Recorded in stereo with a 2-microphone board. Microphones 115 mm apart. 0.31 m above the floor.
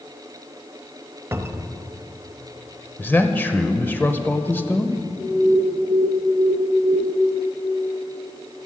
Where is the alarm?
10° right (ahead or behind), 4.5 m.